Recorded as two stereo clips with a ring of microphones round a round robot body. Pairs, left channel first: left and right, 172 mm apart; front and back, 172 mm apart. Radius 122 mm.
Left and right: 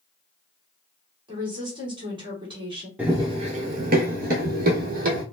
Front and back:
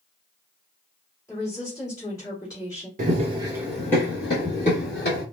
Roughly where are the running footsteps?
Behind.